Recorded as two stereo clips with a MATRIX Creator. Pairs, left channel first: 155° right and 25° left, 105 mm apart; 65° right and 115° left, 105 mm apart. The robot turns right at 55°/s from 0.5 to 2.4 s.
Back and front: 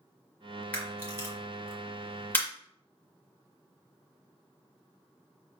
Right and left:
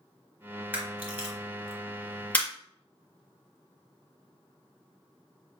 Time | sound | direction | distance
0.7 | a camera shutter | 150° left | 1.4 m